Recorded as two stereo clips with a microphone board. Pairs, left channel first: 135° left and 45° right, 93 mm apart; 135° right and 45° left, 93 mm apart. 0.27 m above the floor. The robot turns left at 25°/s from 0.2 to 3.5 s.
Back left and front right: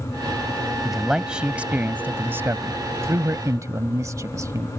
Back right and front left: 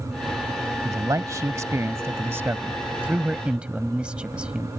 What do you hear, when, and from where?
0.8 s a man speaking: 40° left; by 4.7 s 25° right